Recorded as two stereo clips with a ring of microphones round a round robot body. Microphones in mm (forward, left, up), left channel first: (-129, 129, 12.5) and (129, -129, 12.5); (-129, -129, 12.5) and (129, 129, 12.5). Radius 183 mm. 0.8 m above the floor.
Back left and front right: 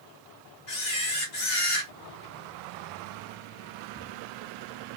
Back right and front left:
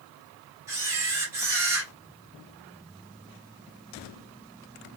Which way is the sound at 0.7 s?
130° left.